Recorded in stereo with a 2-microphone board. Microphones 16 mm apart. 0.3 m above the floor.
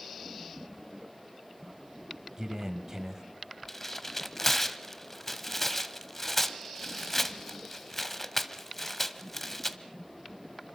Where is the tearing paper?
20° left (ahead or behind), 1.2 m.